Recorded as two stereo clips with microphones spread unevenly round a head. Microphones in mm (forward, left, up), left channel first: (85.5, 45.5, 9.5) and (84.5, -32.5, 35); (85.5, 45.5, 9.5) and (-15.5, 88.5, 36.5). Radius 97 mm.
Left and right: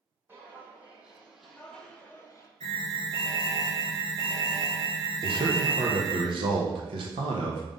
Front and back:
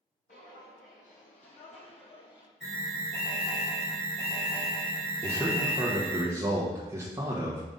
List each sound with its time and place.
0.3 s footsteps: 35° right, 3 m; by 2.5 s 35° left, 1.8 m
2.6 s an alarm: 115° right, 2 m
5.2 s a man speaking: 125° right, 1.0 m